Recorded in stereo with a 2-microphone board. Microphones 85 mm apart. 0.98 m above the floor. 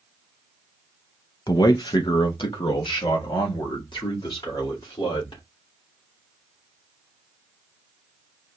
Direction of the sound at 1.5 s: 45° left (ahead or behind).